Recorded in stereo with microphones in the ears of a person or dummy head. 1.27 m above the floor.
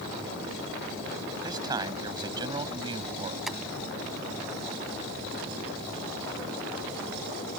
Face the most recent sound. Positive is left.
turn(degrees=-5)  # may be behind; listen again after turning